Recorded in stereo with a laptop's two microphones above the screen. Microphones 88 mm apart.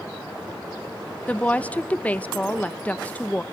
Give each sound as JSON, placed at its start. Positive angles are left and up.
{"t": 1.3, "sound": "a woman speaking", "side_deg": 15, "distance_m": 0.6}